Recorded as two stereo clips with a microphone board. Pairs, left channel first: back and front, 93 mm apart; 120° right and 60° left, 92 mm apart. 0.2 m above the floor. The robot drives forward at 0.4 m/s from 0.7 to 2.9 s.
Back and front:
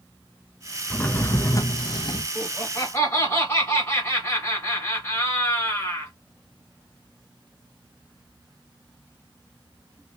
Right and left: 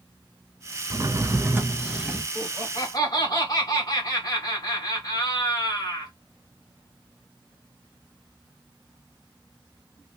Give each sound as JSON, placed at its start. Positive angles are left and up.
{"t": 0.9, "sound": "a drawer", "azimuth_deg": 105, "distance_m": 0.5}
{"t": 2.4, "sound": "laughter", "azimuth_deg": -120, "distance_m": 1.9}